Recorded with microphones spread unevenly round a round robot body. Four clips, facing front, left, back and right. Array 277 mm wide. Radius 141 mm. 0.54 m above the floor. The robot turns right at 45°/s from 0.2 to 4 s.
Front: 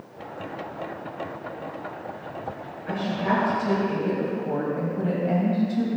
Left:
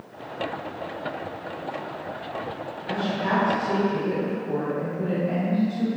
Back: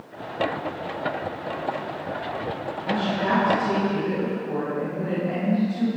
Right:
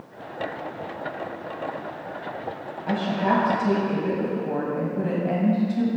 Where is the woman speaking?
105° right, 3.5 m; by 5.9 s 55° right, 3.5 m.